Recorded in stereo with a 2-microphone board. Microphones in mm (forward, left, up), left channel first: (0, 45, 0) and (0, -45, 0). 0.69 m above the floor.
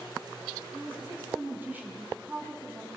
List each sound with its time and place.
0.7 s a woman speaking: 20° right (ahead or behind), 6.5 m